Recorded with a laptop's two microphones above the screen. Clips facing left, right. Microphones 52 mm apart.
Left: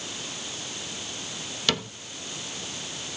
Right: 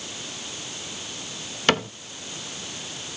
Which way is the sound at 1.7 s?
45° right (ahead or behind).